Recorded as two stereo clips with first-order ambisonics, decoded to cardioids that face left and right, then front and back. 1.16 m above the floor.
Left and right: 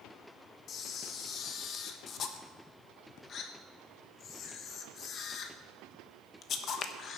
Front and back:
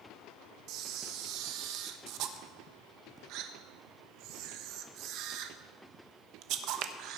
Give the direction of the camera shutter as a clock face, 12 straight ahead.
7 o'clock.